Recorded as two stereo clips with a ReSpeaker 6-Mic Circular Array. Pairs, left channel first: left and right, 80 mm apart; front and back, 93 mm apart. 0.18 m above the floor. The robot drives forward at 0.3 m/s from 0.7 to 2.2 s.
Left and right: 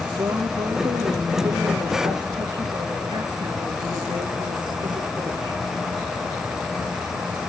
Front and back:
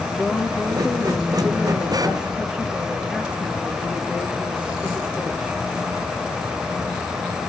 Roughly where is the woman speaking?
Right.